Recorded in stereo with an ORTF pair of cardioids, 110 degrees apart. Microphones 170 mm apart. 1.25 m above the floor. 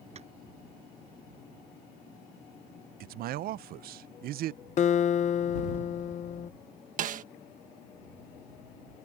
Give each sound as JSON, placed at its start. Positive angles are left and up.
{"t": 0.1, "sound": "tapping", "azimuth_deg": -40}
{"t": 3.0, "sound": "a man speaking", "azimuth_deg": -60}
{"t": 4.8, "sound": "a guitar", "azimuth_deg": 45}
{"t": 7.0, "sound": "a snare drum", "azimuth_deg": -50}